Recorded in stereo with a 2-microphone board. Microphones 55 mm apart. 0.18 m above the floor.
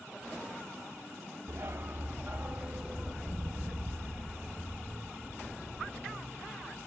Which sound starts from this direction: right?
A dog barking, at 1.5 s.